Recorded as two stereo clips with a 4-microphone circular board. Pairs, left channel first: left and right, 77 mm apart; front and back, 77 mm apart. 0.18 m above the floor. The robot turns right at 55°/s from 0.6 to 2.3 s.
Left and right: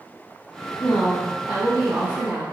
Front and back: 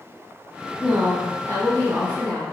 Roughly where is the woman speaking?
Behind left.